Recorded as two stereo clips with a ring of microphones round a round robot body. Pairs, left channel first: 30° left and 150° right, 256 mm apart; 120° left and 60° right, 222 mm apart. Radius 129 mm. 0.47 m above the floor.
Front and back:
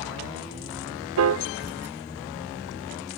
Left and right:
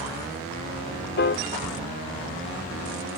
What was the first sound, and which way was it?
A piano, 175° left.